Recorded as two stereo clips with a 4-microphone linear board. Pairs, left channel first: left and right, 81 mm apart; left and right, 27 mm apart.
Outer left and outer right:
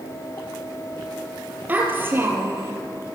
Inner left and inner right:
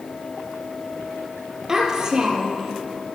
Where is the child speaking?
20° right (ahead or behind), 3 m; by 2.7 s 30° right (ahead or behind), 3.5 m.